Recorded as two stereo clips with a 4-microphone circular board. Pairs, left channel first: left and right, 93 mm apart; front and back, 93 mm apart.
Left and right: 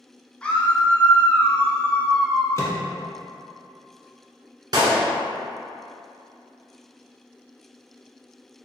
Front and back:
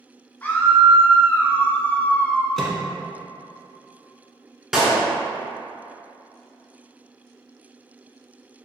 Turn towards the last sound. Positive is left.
turn(degrees=-100)